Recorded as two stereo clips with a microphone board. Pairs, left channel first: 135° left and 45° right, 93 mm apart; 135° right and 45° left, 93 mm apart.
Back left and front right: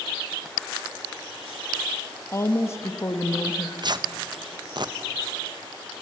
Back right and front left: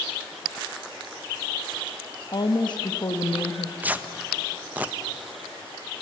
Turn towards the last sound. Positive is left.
turn(degrees=-25)